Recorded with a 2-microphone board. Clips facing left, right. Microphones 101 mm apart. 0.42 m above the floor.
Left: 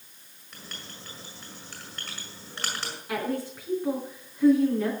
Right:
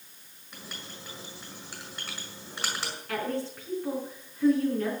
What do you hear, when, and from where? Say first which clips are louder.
0.5 s writing: right 1 dB; 10° right (ahead or behind), 6 m
3.1 s a woman speaking: left 2 dB; 15° left (ahead or behind), 4.5 m